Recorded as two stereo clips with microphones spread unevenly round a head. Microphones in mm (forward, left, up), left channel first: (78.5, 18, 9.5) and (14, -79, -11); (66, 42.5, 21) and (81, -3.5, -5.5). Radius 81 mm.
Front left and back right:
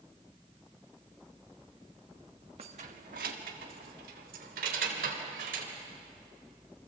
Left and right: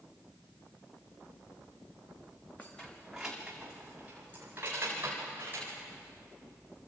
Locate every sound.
2.6 s keys jangling: straight behind, 1.1 m; by 5.7 s 150° right, 3.5 m